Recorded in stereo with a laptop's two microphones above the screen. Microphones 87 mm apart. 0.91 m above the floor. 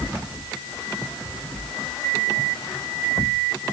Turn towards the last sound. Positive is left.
No sound to turn to.